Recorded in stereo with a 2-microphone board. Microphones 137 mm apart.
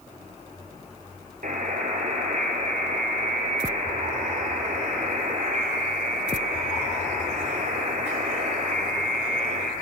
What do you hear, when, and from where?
1.4 s a buzzer: 75° right (ahead or behind), 1.7 m